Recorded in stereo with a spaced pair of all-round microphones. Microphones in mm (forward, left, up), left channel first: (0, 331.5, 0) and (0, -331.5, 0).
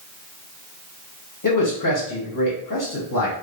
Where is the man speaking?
30° left (ahead or behind), 0.9 m.